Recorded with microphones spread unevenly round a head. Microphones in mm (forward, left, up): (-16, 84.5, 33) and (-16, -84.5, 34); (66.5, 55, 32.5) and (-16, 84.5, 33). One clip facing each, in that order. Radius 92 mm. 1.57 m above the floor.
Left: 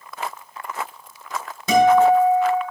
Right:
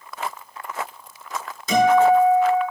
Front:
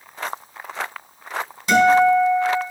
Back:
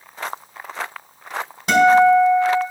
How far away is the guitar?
About 4.5 m.